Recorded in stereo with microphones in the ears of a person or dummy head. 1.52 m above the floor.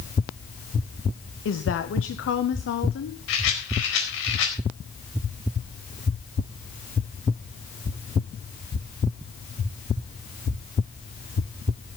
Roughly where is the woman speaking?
Left.